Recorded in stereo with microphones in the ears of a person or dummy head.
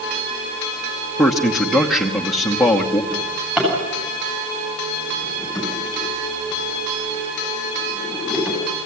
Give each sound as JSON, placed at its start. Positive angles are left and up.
{"t": 1.2, "sound": "a man speaking", "side_deg": 5, "distance_m": 1.1}
{"t": 3.1, "sound": "a drawer", "side_deg": 0, "distance_m": 9.0}